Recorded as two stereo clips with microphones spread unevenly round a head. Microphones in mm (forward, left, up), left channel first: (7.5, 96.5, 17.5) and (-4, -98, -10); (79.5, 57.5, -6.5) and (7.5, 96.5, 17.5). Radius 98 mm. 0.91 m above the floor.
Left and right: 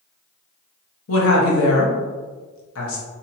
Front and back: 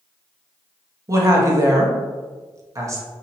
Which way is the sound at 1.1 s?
95° left.